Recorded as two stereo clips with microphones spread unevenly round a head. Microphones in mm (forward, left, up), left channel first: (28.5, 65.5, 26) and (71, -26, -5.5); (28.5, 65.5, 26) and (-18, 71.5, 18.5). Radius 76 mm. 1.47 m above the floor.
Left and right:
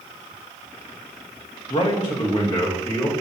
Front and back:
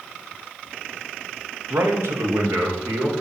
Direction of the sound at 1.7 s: 175° left.